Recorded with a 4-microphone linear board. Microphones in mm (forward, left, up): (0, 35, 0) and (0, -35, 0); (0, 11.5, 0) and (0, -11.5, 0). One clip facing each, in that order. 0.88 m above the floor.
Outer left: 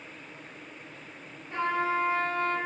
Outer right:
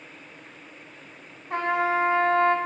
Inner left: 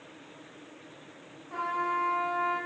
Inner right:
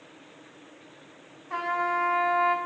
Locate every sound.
1.5 s a trumpet: 65° right (ahead or behind), 1.6 m